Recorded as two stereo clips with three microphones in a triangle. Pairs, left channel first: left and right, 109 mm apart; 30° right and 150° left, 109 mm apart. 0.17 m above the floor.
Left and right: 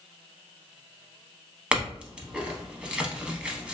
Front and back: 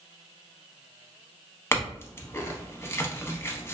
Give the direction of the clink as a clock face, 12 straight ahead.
1 o'clock.